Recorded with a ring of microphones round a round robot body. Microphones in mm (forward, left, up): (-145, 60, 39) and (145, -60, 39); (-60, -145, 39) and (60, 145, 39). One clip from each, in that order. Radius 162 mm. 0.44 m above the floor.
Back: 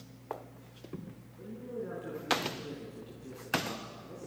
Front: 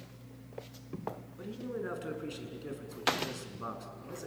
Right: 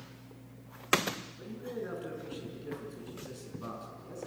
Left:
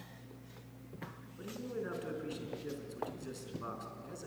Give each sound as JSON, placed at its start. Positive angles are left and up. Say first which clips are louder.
{"t": 1.4, "sound": "a man speaking", "louder": "front 1 dB, right 1 dB", "azimuth_deg": -5, "distance_m": 5.0}